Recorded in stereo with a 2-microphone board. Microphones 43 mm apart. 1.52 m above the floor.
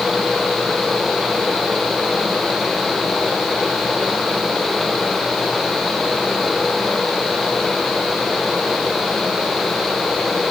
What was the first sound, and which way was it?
Only background noise.